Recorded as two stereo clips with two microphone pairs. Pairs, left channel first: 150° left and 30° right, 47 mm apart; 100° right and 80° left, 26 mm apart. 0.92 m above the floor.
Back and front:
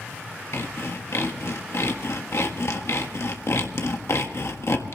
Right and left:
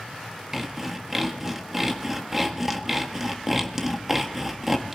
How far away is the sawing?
About 1.6 m.